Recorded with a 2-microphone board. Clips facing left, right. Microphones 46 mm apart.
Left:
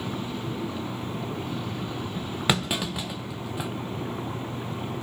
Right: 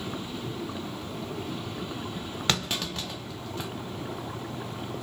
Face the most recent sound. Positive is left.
turn(degrees=10)  # may be behind; listen again after turning